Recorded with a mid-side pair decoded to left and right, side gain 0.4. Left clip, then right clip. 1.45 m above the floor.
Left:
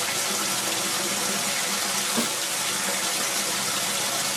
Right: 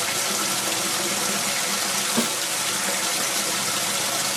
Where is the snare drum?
25° right, 2.0 m.